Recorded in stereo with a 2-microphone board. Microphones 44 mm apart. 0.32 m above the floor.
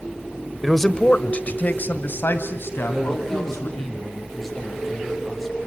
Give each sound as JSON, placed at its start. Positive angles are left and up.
{"t": 0.6, "sound": "a man speaking", "side_deg": 0, "distance_m": 1.1}
{"t": 2.9, "sound": "a man speaking", "side_deg": 5, "distance_m": 8.5}